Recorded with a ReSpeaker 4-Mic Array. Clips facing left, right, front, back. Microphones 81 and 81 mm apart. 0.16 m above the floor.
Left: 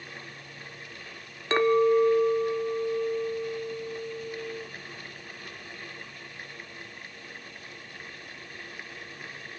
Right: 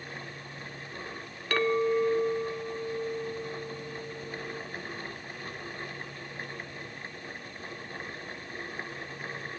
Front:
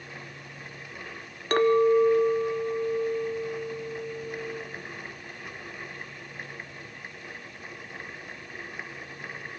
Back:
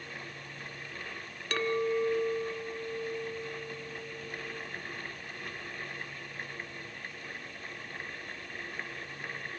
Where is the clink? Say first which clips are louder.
Left 5 dB, front 10 dB; 30° left, 1.2 m.